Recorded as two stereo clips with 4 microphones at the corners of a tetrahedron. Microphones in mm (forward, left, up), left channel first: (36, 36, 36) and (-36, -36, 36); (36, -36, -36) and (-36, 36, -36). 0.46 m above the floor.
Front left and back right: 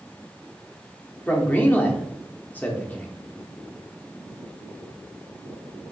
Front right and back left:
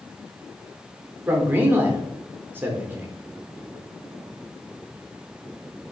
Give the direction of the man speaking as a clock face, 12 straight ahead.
9 o'clock.